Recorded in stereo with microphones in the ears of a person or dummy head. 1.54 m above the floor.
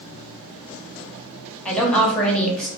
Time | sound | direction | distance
1.6 | a woman speaking | 5° left (ahead or behind) | 1.0 m